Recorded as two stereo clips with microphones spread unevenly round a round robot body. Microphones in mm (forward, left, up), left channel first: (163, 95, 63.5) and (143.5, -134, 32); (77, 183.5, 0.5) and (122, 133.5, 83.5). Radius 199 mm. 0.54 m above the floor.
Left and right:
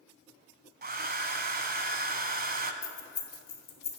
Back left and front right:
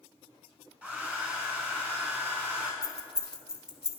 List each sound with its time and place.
0.8 s a hair dryer: 40° right, 0.7 m
2.8 s keys jangling: 55° left, 1.6 m